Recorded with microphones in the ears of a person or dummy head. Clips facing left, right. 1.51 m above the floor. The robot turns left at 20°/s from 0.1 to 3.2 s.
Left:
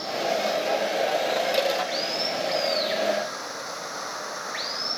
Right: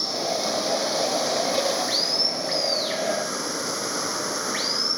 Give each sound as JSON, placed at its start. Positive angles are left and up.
{"t": 0.0, "sound": "running water", "azimuth_deg": -70}